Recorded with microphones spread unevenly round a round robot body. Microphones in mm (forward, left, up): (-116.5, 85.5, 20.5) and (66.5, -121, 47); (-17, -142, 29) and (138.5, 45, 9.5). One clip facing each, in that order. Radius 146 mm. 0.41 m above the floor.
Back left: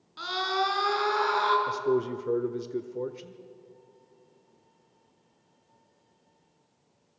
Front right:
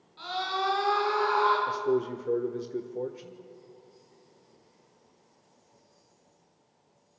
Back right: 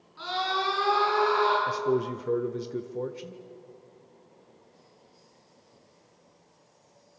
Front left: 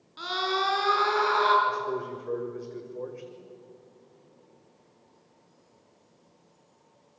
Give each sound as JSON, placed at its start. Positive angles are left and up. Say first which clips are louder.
{"t": 0.2, "sound": "a scream", "louder": "back left 3 dB, front left 3 dB", "azimuth_deg": 105, "distance_m": 6.0}
{"t": 1.7, "sound": "a man speaking", "louder": "back left 3 dB, back right 6 dB", "azimuth_deg": -160, "distance_m": 1.0}